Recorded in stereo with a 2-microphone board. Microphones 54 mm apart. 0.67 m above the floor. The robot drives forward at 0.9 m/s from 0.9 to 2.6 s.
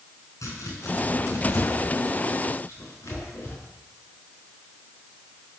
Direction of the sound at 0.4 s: 70° left (ahead or behind).